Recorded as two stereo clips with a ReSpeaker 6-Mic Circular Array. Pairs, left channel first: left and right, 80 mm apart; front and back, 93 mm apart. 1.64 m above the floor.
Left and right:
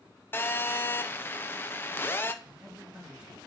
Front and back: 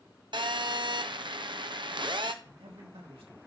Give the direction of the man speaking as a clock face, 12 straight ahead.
6 o'clock.